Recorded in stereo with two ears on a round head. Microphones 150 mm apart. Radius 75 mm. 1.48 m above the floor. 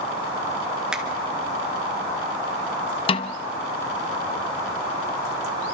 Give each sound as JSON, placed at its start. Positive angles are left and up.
{"t": 0.9, "sound": "a finger snap", "side_deg": -5, "distance_m": 2.0}
{"t": 3.1, "sound": "a snare drum", "side_deg": 35, "distance_m": 0.9}